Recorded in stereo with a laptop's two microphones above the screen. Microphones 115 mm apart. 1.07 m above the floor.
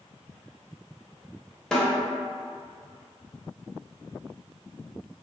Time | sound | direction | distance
1.7 | a snare drum | 5° left (ahead or behind) | 0.7 m